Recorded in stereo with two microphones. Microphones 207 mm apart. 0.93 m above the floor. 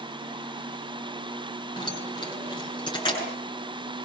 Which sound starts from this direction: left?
Keys jangling, at 1.8 s.